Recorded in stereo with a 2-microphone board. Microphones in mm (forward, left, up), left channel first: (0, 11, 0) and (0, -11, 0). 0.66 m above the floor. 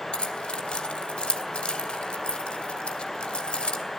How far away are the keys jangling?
About 2.5 m.